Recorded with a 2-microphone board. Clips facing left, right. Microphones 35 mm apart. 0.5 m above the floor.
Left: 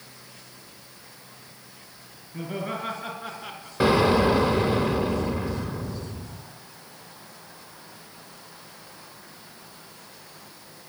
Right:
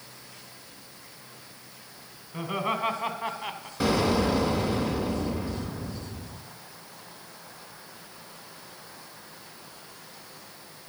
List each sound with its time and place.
2.3 s laughter: 65° right (ahead or behind), 2.5 m; by 3.7 s 25° right (ahead or behind), 1.6 m
3.8 s an explosion: 25° left (ahead or behind), 1.0 m